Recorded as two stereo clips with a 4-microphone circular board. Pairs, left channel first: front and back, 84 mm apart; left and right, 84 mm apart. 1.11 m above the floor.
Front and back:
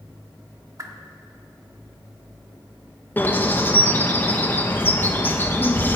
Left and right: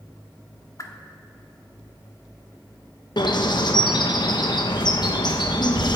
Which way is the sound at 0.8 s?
135° left.